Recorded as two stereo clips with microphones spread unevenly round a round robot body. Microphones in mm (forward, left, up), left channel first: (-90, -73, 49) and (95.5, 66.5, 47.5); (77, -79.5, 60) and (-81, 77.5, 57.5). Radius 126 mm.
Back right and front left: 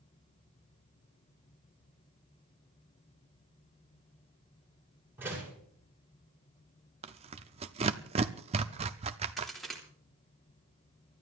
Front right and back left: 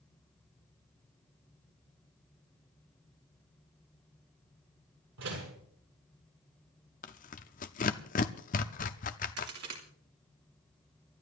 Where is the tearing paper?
15° right, 0.5 m.